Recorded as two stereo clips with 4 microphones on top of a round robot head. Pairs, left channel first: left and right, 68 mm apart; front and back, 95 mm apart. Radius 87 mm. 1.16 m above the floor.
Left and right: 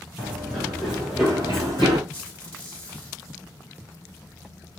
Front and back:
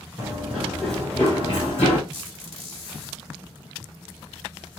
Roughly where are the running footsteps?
Behind.